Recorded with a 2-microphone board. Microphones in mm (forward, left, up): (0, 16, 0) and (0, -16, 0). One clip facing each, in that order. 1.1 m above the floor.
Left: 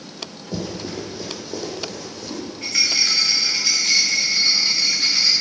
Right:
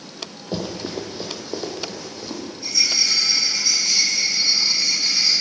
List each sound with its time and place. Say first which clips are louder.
0.5 s running footsteps: right 1 dB; 40° right (ahead or behind), 1.4 m; by 2.4 s 15° right (ahead or behind), 2.5 m
2.6 s a rattle: left 1 dB; 75° left (ahead or behind), 2 m